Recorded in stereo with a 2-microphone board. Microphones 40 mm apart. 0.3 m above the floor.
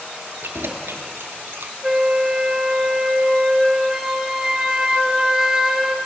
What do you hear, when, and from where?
0.4 s keys jangling: 65° right (ahead or behind), 3.5 m
1.8 s a flute: 10° right (ahead or behind), 1.2 m